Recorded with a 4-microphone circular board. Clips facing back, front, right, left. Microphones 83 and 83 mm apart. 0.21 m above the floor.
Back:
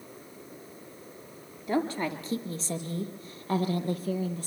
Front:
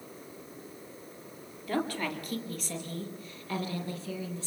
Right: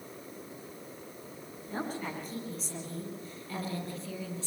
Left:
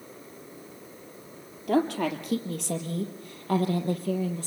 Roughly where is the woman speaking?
Left.